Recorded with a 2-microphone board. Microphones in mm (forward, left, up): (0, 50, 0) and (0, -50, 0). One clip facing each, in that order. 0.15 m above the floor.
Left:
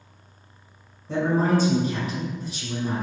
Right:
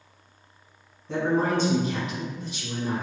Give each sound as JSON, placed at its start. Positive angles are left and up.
{"t": 1.1, "sound": "a man speaking", "side_deg": 0, "distance_m": 1.0}